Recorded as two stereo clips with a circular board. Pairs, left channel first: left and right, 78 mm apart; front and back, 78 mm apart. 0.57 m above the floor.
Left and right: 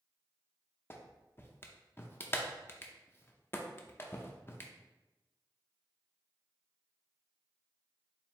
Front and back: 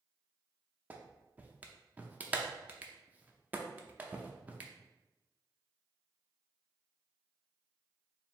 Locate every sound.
0.9 s a clap: 125° left, 0.6 m